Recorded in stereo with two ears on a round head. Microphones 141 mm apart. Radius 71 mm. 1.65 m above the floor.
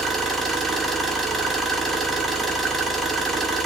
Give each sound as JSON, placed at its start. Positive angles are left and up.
{"t": 0.0, "sound": "an engine running", "side_deg": 0, "distance_m": 1.4}